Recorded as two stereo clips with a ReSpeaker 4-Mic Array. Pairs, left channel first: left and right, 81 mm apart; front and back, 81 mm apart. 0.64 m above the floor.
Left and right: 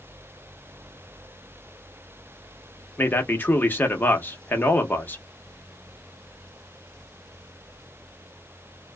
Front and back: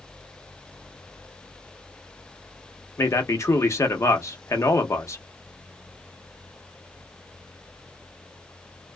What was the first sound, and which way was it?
A man speaking, 35° left.